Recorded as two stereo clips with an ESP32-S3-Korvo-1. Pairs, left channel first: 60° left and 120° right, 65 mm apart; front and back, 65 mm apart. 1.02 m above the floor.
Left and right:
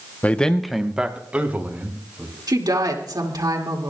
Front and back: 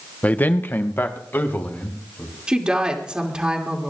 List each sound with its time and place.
0.2 s a man speaking: 30° left, 0.8 m; by 2.3 s 60° right, 2.5 m
2.5 s a woman speaking: 105° right, 2 m